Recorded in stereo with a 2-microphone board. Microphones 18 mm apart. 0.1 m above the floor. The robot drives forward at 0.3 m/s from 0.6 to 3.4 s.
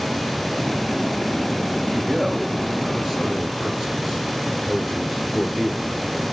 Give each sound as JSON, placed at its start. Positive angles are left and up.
{"t": 1.9, "sound": "a man speaking", "side_deg": -25, "distance_m": 1.9}